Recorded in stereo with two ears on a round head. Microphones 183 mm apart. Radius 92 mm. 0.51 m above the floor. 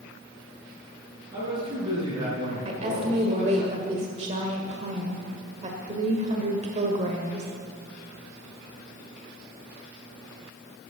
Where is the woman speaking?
35° right (ahead or behind), 1.5 m.